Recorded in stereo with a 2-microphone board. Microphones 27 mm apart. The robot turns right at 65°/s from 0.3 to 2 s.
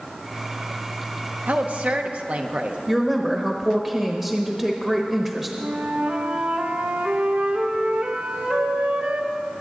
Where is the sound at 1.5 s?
90° right, 1.1 m; by 2.8 s 55° right, 1.1 m.